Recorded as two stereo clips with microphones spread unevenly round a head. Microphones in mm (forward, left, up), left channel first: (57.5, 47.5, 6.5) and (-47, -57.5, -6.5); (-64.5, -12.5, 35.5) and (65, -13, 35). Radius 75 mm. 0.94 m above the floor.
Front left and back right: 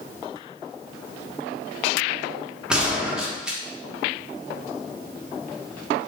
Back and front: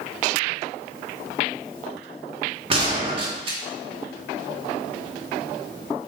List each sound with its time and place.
2.7 s a gunshot: 50° right, 1.0 m